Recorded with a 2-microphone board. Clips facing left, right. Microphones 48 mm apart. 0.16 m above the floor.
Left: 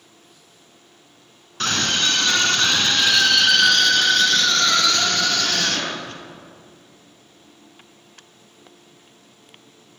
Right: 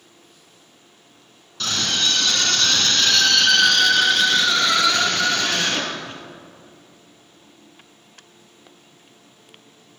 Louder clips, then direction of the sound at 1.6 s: Left 2 dB; 45° left (ahead or behind).